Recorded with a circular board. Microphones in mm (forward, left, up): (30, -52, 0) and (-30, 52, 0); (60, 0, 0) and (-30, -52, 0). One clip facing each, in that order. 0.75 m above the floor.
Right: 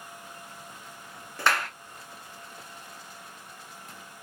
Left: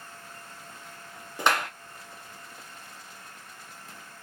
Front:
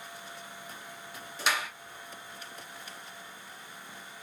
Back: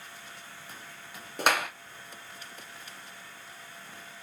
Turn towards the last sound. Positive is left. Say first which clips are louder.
# left 1 dB, back 5 dB
turn(degrees=-170)